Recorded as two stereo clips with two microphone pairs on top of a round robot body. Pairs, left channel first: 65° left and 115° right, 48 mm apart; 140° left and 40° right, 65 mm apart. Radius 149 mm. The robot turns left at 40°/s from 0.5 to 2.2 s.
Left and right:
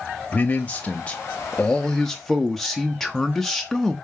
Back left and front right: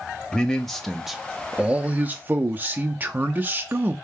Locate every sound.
0.3 s a man speaking: 55° left, 0.7 m; by 4.0 s 15° right, 0.7 m